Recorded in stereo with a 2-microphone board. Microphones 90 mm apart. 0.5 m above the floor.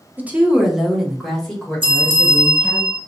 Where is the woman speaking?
20° right (ahead or behind), 0.9 m; by 2.8 s 15° left (ahead or behind), 2.5 m.